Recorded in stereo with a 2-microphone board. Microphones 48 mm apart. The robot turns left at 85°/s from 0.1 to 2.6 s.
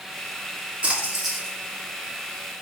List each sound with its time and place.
0.8 s a splash: 135° right, 1.6 m; by 1.5 s 160° left, 1.6 m